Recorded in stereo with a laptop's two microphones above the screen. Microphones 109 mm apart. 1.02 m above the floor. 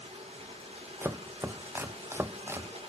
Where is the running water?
70° right (ahead or behind), 2.0 m.